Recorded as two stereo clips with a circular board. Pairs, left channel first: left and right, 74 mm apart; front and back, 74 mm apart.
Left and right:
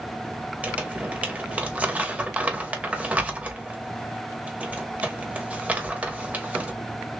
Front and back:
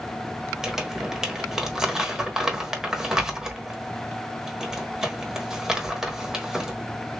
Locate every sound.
0.6 s crumpling: 115° right, 1.0 m